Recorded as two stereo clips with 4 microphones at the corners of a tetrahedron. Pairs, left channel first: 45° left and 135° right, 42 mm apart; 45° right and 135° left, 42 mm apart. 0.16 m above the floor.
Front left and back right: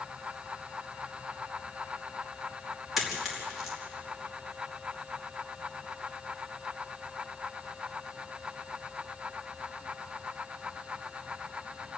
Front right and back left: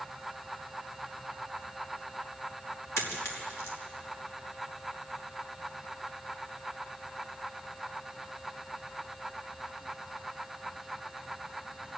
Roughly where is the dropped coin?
Ahead right.